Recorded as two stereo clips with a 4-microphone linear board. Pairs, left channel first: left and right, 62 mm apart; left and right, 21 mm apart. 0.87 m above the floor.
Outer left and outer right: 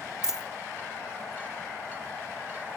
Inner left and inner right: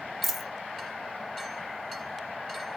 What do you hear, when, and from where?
0.2 s a dropped coin: 10° right (ahead or behind), 0.7 m